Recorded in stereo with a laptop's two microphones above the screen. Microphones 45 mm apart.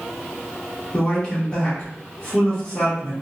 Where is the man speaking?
15° left (ahead or behind), 1.2 m.